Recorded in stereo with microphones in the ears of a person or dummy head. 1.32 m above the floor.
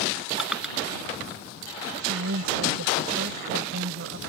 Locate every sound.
0.4 s crushing: 5° right (ahead or behind)
2.0 s a woman speaking: 80° right